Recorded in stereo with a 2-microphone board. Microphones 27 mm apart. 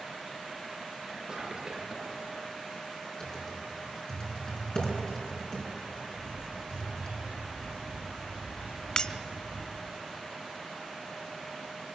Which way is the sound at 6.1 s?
75° right (ahead or behind).